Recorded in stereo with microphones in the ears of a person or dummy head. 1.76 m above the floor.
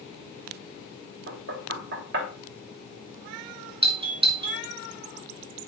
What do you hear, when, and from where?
1.3 s knocking: 70° right (ahead or behind), 2.5 m
3.8 s a doorbell: 30° right (ahead or behind), 2 m